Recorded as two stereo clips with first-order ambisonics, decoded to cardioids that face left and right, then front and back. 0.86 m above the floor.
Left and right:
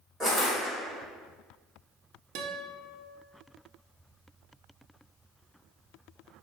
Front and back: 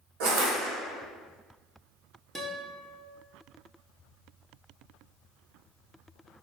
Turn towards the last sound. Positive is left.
turn(degrees=-100)